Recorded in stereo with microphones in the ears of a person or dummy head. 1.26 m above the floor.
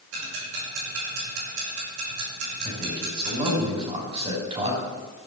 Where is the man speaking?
35° right (ahead or behind), 5.5 m.